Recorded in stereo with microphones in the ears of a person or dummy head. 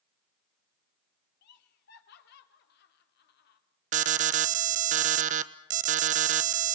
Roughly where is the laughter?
Left.